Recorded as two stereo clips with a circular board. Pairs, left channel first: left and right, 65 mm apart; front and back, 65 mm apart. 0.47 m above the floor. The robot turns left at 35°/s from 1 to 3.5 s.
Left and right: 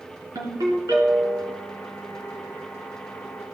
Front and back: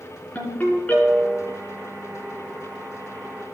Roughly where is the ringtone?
Ahead right.